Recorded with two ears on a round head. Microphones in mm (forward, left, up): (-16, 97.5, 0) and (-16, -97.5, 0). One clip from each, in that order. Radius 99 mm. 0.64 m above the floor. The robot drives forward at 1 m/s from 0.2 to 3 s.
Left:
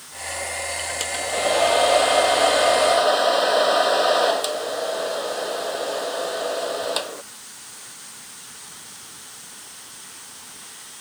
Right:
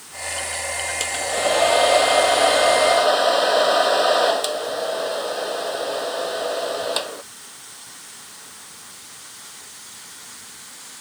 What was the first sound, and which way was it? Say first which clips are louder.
A hair dryer: right 1 dB; 10° right (ahead or behind).